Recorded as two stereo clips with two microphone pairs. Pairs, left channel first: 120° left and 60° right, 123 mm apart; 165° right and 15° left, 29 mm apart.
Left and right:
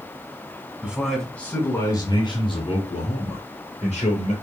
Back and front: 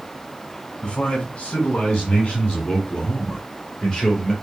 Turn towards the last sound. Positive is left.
turn(degrees=140)